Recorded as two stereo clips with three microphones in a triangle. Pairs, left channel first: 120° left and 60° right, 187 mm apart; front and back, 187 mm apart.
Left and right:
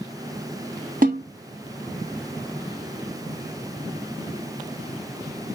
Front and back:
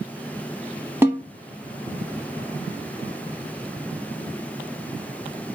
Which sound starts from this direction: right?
A snare drum, at 1.0 s.